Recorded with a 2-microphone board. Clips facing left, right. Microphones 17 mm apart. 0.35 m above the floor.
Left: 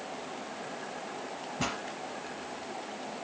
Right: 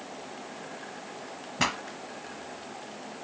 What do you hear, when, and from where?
1.6 s a pop: 55° right (ahead or behind), 1.0 m